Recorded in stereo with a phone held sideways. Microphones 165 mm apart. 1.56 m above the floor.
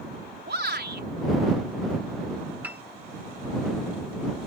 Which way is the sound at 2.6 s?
10° right (ahead or behind).